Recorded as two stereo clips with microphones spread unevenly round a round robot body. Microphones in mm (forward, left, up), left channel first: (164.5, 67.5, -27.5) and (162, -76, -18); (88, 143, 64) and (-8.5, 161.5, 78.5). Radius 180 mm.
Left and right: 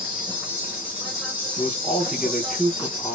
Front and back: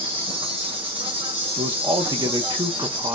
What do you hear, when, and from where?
0.0 s an insect: 165° right, 0.8 m
1.6 s a man speaking: 175° left, 0.7 m